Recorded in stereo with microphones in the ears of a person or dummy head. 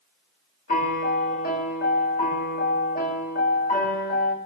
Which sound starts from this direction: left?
A piano, at 0.7 s.